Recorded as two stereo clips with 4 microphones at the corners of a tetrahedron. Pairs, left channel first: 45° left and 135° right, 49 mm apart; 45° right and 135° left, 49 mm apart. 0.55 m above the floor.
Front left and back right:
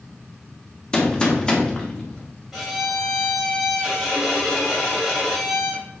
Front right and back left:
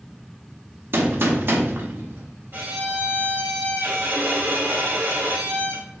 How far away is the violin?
About 1.1 m.